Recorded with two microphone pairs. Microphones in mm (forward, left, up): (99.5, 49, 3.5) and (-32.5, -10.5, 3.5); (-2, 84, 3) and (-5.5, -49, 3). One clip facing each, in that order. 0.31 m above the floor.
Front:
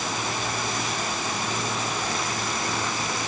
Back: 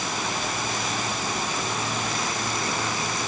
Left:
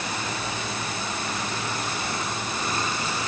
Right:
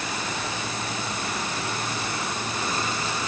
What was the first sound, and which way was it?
Only background noise.